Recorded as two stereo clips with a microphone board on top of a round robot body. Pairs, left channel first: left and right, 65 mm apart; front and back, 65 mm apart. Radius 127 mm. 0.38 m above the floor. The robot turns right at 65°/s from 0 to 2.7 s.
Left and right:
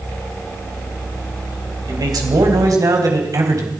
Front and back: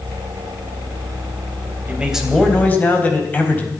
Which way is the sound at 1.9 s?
115° right.